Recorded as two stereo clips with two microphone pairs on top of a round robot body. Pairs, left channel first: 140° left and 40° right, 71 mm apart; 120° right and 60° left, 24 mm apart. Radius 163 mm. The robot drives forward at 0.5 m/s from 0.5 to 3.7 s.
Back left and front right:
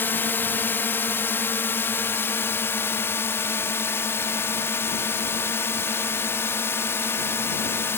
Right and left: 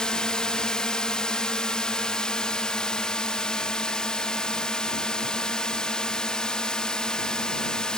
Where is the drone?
165° right; by 8.0 s 170° right.